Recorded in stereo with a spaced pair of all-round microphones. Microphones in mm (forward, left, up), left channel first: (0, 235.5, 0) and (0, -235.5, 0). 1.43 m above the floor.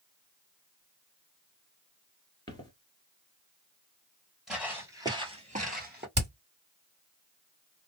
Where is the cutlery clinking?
No cutlery clinking in this recording.